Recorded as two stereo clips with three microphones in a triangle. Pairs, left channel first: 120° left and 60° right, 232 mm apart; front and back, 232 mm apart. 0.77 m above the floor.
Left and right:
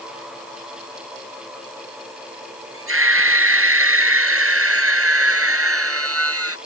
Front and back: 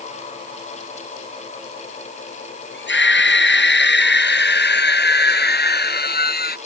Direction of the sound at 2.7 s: 35° right.